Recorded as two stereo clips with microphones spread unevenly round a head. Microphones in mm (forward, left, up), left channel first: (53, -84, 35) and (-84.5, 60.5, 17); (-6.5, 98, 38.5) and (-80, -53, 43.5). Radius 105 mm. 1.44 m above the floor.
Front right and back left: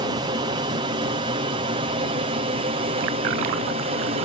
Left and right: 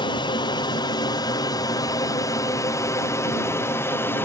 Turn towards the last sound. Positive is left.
turn(degrees=130)